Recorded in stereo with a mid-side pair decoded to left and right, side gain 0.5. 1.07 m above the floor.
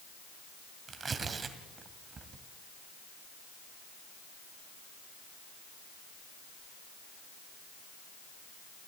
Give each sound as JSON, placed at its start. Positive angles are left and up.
{"t": 0.9, "sound": "tearing paper", "azimuth_deg": -40, "distance_m": 2.0}